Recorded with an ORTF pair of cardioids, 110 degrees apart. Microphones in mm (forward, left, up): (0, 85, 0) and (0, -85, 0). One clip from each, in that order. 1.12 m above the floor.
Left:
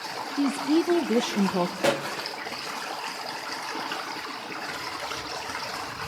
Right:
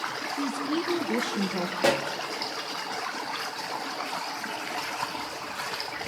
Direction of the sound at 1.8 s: Straight ahead.